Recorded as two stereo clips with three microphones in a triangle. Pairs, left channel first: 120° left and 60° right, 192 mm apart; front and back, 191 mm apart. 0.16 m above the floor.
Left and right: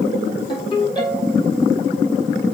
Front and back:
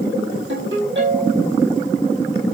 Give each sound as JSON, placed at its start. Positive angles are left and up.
{"t": 0.5, "sound": "a ringtone", "azimuth_deg": -175, "distance_m": 4.5}